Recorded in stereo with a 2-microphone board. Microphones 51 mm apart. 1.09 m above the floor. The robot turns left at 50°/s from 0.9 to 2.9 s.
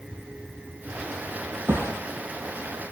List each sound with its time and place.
1.7 s a thud: 45° right (ahead or behind), 3.5 m; by 2.0 s 60° right (ahead or behind), 3.5 m